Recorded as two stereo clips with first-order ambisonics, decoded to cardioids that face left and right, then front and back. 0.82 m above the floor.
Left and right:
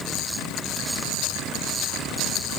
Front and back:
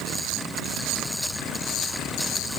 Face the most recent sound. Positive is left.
No sound to turn to.